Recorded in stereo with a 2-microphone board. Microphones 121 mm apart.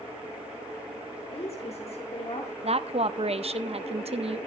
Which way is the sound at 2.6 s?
55° right (ahead or behind).